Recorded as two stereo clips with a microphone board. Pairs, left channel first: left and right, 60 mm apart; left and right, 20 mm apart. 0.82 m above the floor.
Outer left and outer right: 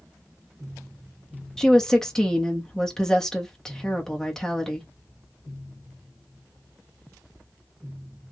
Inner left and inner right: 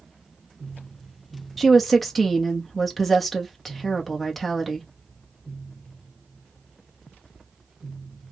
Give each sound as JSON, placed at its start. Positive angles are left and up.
{"t": 1.6, "sound": "a woman speaking", "side_deg": 10, "distance_m": 1.1}